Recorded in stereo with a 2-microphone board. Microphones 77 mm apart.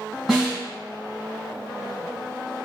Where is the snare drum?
Centre (ahead or behind), 1.4 m.